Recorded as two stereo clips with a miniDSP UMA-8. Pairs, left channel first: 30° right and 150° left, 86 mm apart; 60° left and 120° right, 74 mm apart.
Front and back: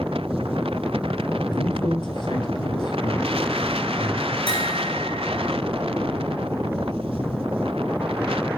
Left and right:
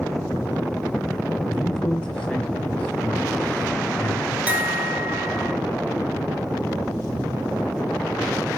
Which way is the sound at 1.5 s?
20° right.